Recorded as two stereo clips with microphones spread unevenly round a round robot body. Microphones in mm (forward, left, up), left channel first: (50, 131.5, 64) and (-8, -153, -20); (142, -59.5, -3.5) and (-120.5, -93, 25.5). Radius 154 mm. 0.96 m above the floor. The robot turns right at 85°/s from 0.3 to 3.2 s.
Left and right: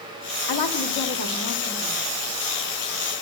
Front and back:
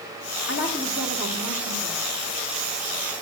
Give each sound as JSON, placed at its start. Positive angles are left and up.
{"t": 0.5, "sound": "a woman speaking", "azimuth_deg": 60, "distance_m": 1.9}